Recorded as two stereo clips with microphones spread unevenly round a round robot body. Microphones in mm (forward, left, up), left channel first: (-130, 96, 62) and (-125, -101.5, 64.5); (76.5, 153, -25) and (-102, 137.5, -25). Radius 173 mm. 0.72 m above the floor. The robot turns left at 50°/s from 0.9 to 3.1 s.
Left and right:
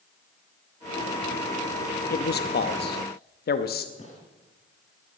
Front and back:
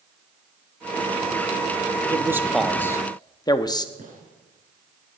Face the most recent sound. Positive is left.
turn(degrees=145)